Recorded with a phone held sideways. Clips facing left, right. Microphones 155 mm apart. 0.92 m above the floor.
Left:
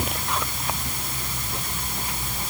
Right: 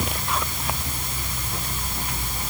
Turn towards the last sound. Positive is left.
No sound to turn to.